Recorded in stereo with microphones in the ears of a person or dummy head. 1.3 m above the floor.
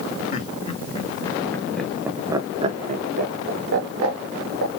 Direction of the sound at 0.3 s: 40° left (ahead or behind).